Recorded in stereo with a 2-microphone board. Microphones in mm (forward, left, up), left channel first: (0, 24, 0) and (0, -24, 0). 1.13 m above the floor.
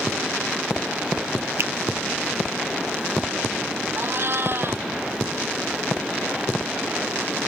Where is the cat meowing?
50° right (ahead or behind).